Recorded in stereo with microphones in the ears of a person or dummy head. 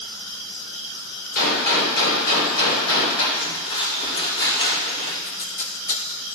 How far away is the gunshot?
About 3 m.